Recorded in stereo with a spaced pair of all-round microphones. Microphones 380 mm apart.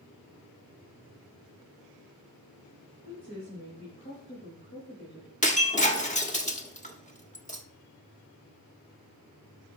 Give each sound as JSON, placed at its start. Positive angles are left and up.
{"t": 3.0, "sound": "a woman speaking", "side_deg": 25, "distance_m": 3.0}
{"t": 5.4, "sound": "breaking glass", "side_deg": 20, "distance_m": 1.0}